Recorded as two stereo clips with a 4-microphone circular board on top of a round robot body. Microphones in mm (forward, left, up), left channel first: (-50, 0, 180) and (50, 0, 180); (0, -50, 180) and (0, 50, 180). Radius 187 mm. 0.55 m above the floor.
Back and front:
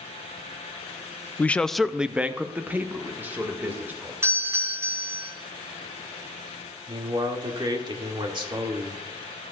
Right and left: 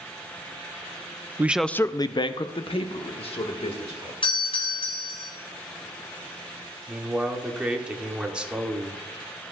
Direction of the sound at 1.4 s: 130° left.